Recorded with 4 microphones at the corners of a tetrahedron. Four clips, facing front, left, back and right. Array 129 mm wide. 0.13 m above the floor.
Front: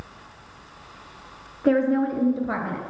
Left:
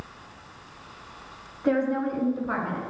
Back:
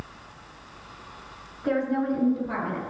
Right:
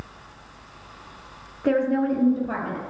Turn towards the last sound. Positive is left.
turn(degrees=0)